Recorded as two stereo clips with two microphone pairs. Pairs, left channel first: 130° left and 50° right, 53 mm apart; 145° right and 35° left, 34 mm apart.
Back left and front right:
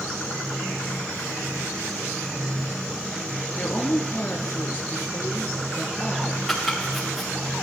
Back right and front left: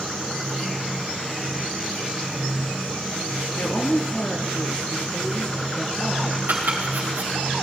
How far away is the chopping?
About 5 m.